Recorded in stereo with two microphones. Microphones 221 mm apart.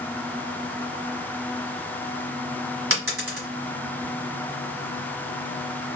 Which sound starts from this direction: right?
A dropped coin, at 2.9 s.